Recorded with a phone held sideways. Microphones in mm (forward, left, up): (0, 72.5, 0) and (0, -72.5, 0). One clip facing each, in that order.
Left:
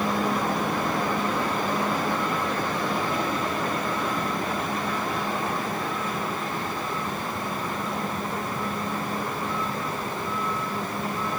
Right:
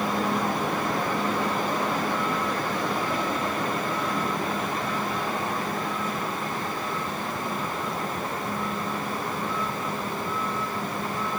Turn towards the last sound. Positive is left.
No sound to turn to.